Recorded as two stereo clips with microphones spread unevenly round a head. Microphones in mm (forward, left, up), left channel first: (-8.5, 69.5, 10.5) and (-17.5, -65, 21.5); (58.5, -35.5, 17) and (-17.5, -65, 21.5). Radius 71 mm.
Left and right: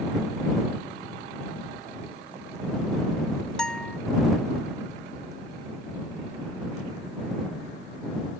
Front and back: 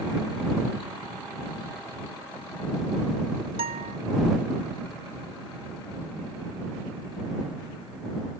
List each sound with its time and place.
3.6 s a guitar: 175° left